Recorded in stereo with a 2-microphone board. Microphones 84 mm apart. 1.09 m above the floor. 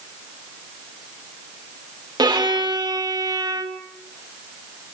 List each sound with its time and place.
2.2 s a violin: 60° right (ahead or behind), 1.6 m